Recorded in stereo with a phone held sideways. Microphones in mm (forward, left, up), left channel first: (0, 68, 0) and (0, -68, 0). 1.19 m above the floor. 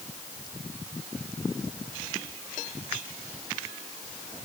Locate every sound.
Only background noise.